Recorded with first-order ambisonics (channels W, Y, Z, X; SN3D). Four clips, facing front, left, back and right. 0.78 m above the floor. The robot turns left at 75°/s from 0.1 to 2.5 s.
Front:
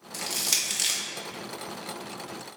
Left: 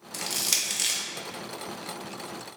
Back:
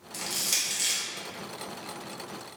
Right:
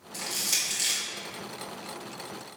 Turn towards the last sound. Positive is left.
turn(degrees=-95)